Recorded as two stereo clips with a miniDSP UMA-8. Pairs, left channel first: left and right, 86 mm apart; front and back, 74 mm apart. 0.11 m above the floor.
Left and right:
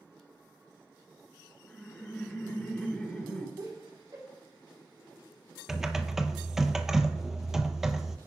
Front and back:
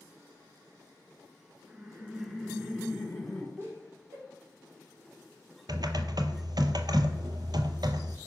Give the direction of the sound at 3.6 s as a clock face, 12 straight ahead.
4 o'clock.